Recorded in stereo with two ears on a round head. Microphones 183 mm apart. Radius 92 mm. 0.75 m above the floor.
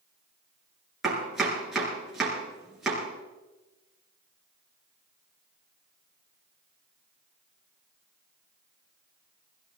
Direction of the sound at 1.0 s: Centre (ahead or behind).